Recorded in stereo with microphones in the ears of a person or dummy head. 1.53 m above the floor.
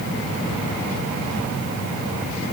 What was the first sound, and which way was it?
Only background noise.